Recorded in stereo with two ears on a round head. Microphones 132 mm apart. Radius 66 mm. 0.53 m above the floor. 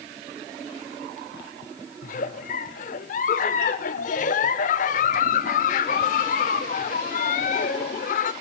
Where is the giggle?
55° left (ahead or behind), 0.7 m.